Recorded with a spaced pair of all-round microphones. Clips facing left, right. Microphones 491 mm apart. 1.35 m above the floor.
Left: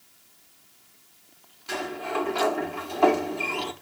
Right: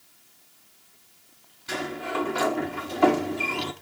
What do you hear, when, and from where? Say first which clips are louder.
1.7 s a sliding door: even; 35° right (ahead or behind), 1.3 m